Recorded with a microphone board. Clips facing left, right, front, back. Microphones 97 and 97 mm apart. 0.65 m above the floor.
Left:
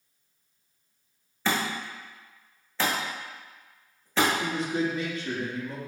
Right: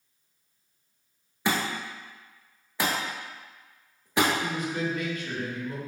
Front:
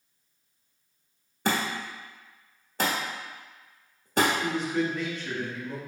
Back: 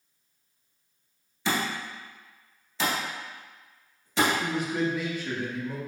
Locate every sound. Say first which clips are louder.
1.4 s a thud: even, front 1 dB; 15° right, 1.1 m
4.4 s a man speaking: left 2 dB, even; 105° left, 0.8 m